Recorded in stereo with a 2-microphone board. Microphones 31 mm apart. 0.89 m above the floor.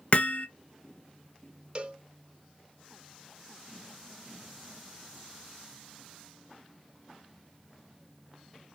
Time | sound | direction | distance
0.1 | hammering | 40° left (ahead or behind) | 0.9 m
1.8 | a cowbell | 30° right (ahead or behind) | 1.5 m